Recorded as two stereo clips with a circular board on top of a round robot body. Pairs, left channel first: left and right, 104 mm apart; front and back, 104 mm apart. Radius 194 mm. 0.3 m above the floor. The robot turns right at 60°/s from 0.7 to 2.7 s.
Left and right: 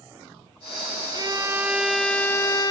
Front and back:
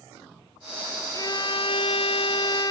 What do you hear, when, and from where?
1.1 s a violin: 50° right, 0.5 m; by 2.7 s 45° left, 0.5 m